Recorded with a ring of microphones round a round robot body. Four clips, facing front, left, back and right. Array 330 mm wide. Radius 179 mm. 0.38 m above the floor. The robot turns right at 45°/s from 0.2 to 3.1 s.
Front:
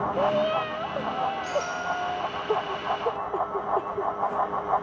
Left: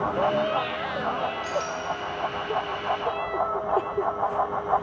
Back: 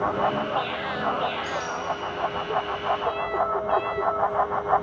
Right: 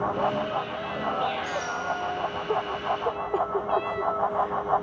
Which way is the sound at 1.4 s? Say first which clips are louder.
Left 1 dB, even; 110° left.